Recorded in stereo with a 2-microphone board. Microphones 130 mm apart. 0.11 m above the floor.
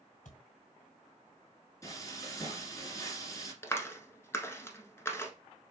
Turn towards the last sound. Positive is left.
turn(degrees=20)  # may be behind; listen again after turning